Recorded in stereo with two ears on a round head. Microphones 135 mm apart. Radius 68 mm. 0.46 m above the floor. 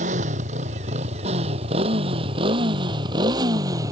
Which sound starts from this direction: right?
A motorcycle, at 0.0 s.